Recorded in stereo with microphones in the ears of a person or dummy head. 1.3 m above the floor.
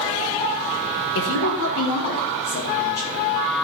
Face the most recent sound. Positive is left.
turn(degrees=80)